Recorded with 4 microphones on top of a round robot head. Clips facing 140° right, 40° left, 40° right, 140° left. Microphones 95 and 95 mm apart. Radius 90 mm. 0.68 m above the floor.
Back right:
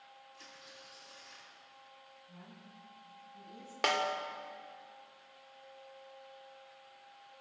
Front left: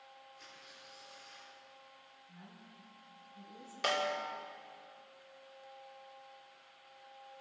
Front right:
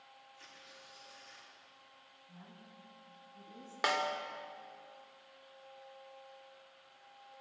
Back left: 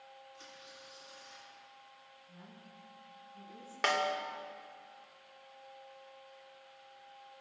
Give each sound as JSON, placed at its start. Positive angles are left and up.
{"t": 0.3, "sound": "tearing paper", "azimuth_deg": -150, "distance_m": 8.5}
{"t": 2.3, "sound": "a woman speaking", "azimuth_deg": -105, "distance_m": 8.0}
{"t": 3.8, "sound": "a snare drum", "azimuth_deg": -120, "distance_m": 2.5}